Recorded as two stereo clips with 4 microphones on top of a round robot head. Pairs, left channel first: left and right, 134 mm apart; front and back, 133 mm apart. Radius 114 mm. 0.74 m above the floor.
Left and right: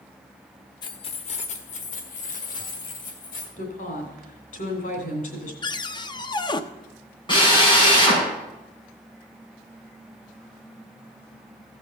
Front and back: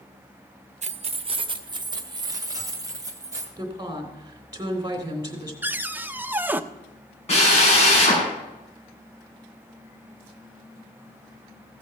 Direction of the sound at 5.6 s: 110° left.